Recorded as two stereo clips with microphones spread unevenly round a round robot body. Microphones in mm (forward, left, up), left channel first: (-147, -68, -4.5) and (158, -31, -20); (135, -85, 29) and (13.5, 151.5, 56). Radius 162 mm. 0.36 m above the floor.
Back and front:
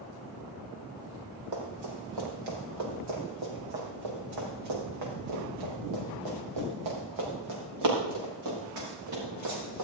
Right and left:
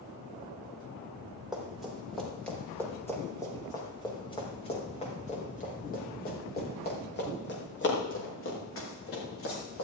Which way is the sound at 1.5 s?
30° left.